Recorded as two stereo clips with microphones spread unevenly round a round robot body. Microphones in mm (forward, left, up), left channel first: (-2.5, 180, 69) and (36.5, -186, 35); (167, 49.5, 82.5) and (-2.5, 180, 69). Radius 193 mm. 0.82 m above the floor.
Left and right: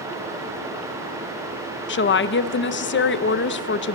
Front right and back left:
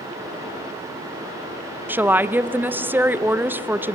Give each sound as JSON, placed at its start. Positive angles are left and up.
{"t": 1.9, "sound": "a woman speaking", "azimuth_deg": 80, "distance_m": 0.9}